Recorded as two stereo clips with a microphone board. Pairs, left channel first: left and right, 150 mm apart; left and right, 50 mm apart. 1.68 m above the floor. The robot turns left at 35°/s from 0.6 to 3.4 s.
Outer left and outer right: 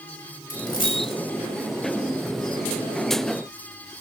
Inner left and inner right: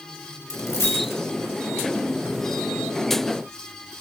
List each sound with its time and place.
0.5 s a dropped coin: 75° left (ahead or behind), 3.5 m; by 1.2 s 65° left (ahead or behind), 3.5 m